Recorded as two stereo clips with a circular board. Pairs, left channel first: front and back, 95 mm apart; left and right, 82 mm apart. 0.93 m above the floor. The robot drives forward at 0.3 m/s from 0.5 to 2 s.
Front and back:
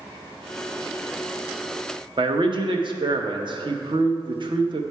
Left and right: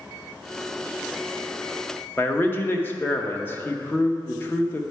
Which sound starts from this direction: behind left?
A man speaking, at 2.2 s.